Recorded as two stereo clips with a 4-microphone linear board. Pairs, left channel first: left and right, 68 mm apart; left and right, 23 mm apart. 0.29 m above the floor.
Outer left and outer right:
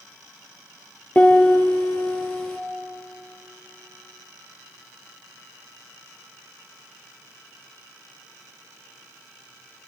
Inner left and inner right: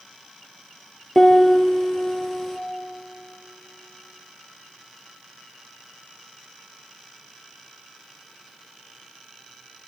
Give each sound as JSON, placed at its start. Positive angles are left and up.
{"t": 1.1, "sound": "a piano", "side_deg": 25, "distance_m": 3.0}